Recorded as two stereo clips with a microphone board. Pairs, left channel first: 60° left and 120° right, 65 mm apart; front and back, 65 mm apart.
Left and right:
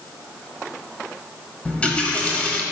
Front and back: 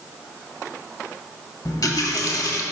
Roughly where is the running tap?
Ahead.